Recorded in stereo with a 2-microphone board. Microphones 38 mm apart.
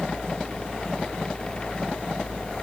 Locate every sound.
Only background noise.